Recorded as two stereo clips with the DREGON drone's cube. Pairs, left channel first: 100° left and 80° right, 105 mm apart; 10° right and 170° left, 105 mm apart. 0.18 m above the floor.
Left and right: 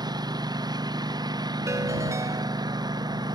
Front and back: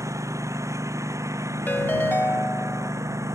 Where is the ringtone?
70° right.